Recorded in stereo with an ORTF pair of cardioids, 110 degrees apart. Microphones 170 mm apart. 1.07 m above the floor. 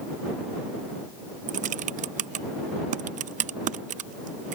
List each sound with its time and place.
1.5 s typing on a keyboard: 45° right